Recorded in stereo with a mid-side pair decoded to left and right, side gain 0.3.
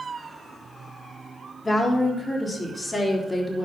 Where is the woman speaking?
40° left, 3.5 m; by 3.7 s 25° left, 4 m.